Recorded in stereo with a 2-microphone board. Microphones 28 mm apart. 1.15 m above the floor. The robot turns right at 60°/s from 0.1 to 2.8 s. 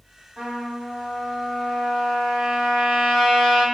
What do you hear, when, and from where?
0.4 s a trumpet: 10° left, 1.5 m; by 3.6 s 160° left, 1.5 m